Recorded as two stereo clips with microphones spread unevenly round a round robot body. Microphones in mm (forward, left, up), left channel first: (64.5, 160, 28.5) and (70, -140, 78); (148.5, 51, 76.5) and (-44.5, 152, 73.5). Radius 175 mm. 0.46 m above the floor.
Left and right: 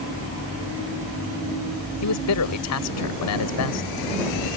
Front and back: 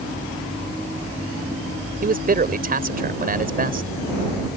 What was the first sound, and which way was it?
A man speaking, 110° left.